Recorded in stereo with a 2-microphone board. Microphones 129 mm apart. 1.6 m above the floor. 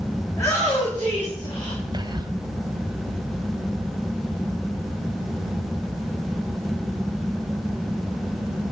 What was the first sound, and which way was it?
A shout, 20° left (ahead or behind).